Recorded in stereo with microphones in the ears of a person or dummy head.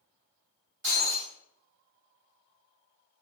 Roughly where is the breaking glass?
Right.